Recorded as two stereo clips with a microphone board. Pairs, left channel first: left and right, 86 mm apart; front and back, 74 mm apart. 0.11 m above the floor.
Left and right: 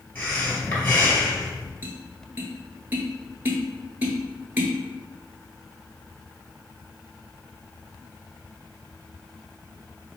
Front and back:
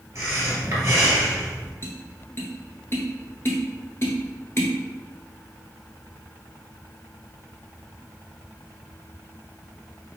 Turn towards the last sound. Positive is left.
turn(degrees=-35)